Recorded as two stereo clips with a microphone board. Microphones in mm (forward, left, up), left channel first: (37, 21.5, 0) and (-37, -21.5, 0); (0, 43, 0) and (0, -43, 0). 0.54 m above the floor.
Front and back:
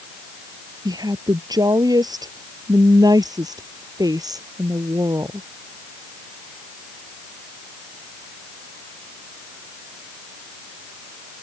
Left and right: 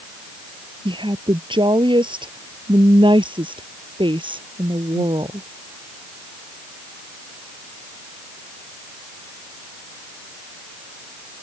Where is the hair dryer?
No hair dryer in this recording.